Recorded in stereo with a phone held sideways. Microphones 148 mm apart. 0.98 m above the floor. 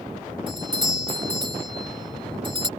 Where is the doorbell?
30° right (ahead or behind).